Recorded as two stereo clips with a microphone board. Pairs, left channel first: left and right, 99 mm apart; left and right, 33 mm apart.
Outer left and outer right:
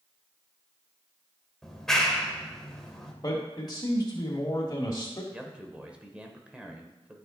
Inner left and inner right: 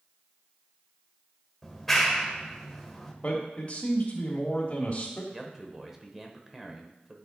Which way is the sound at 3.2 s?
40° left (ahead or behind).